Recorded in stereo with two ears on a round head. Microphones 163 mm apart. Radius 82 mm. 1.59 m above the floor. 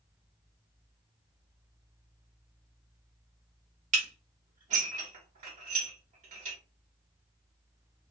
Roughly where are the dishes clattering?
Right.